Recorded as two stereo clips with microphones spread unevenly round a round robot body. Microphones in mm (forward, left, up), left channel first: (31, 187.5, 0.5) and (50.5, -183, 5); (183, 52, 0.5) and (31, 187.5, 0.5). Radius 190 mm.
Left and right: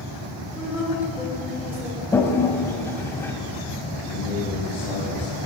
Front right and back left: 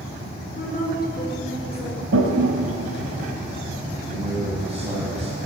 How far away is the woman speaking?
About 4.5 m.